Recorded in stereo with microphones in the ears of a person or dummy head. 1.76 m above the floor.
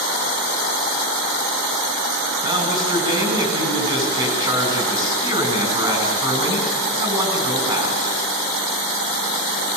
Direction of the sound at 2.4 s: 20° right (ahead or behind).